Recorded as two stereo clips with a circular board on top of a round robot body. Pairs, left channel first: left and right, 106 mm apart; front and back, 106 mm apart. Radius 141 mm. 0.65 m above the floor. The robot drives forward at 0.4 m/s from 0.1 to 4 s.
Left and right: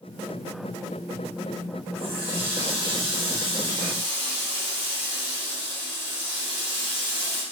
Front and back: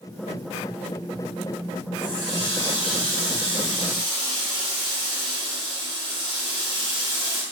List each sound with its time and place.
2.0 s a running tap: 125° right, 2.5 m; by 7.4 s 135° right, 3 m